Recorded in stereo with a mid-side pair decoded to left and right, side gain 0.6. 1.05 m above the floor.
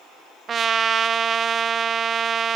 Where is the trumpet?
35° right, 0.5 m.